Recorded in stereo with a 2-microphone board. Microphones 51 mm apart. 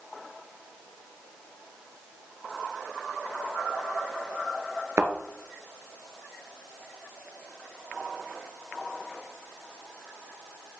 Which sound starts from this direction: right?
A thud, at 5.0 s.